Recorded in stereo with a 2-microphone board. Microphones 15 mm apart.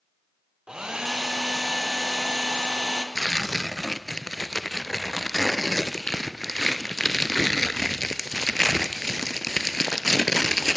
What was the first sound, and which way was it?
A hair dryer, 60° right (ahead or behind).